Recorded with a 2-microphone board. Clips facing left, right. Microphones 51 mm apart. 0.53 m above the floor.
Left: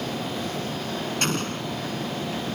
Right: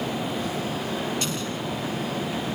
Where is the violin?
No violin in this recording.